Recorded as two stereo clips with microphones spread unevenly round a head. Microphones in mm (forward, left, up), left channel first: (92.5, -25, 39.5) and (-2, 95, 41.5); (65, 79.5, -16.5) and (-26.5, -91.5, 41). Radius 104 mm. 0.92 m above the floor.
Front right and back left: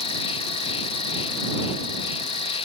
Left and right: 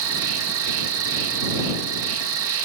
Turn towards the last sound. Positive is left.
turn(degrees=-105)